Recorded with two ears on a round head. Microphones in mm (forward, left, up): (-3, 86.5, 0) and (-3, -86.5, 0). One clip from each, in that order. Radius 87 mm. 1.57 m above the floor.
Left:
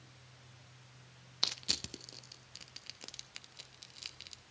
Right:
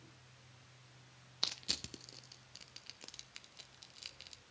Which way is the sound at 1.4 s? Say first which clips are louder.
Left 4 dB; 5° left (ahead or behind).